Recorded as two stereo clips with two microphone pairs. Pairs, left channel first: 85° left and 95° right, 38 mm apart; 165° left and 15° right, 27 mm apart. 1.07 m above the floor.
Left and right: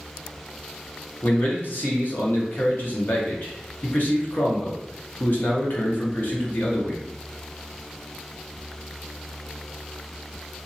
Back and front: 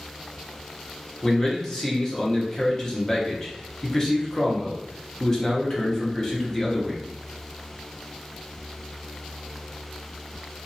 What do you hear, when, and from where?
1.2 s a man speaking: 95° left, 1.1 m